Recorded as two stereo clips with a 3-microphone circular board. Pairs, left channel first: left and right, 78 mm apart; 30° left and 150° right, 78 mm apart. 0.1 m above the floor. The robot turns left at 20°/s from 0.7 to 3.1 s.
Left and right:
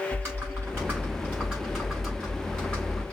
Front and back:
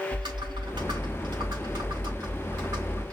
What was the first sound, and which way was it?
Typing on a keyboard, 150° right.